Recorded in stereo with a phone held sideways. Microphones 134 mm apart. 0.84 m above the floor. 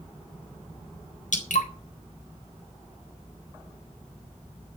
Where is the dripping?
70° left (ahead or behind), 3.5 m.